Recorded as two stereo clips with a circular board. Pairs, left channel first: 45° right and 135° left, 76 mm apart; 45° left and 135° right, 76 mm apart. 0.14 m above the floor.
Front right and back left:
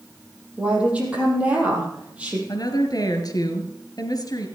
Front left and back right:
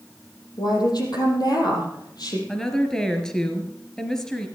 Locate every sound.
0.6 s a woman speaking: 65° left, 4.5 m
2.5 s a woman speaking: 35° right, 2.5 m